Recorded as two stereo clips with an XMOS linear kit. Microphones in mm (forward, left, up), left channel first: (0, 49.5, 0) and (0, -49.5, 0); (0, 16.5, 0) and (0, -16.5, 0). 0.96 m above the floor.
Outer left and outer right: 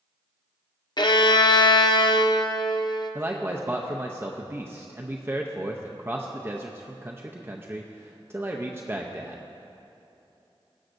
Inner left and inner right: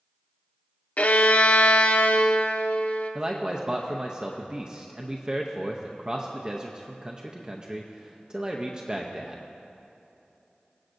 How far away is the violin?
About 0.5 m.